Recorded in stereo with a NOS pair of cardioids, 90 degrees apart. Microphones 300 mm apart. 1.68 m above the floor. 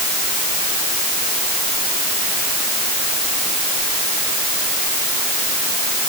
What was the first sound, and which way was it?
Only background noise.